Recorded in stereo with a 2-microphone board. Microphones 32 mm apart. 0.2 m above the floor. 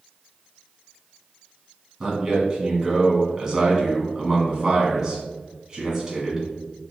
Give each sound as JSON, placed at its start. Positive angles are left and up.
{"t": 2.0, "sound": "a man speaking", "side_deg": -20, "distance_m": 1.5}